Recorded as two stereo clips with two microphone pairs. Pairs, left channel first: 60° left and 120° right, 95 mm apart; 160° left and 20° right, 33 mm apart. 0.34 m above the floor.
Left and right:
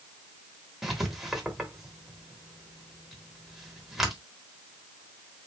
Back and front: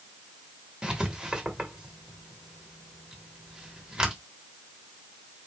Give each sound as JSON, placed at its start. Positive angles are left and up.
{"t": 0.8, "sound": "writing", "azimuth_deg": -35, "distance_m": 1.5}